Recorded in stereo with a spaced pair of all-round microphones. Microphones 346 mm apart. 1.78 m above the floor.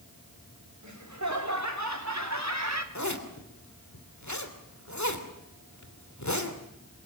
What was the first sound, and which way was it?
Laughter, 55° right (ahead or behind).